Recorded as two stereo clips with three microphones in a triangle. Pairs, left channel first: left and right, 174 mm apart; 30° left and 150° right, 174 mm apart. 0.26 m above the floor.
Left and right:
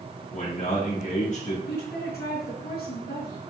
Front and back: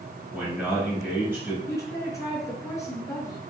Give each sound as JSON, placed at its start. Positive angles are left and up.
{"t": 0.3, "sound": "a man speaking", "azimuth_deg": 115, "distance_m": 3.0}
{"t": 1.7, "sound": "a woman speaking", "azimuth_deg": 100, "distance_m": 3.5}